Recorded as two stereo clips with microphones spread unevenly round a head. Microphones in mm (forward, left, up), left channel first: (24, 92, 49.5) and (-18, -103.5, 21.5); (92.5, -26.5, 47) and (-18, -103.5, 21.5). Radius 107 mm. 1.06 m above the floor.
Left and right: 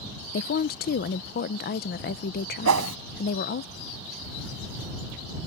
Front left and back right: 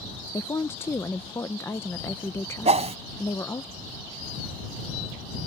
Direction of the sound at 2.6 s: 105° right.